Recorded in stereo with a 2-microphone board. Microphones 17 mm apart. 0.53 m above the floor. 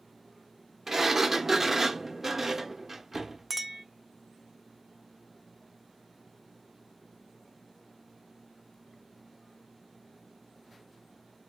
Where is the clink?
15° right (ahead or behind), 0.8 m.